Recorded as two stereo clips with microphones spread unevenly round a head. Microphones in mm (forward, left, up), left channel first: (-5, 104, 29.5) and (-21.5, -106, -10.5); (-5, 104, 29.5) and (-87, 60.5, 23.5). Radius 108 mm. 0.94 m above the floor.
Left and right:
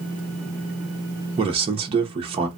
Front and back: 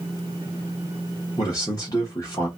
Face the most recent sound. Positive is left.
turn(degrees=-35)